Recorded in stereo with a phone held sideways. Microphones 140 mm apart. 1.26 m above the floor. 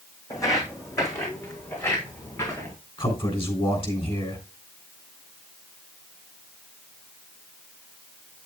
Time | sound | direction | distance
0.3 | footsteps | 25° left (ahead or behind) | 3 m
3.0 | a man speaking | 40° left (ahead or behind) | 3 m